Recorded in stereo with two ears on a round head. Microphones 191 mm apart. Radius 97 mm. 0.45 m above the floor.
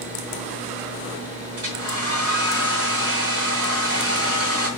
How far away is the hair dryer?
About 5 m.